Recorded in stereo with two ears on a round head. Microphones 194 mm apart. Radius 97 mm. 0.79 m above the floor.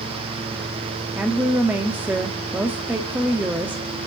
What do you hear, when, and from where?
1.1 s a woman speaking: 10° right (ahead or behind), 1.4 m